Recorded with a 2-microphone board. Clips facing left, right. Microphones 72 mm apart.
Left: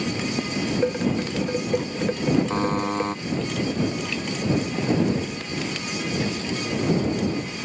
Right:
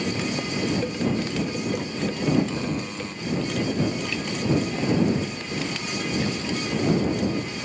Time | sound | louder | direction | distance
0.8 | dishes clattering | left 2 dB | 30° left (ahead or behind) | ?
2.5 | a buzzer | left 5 dB | 50° left (ahead or behind) | ?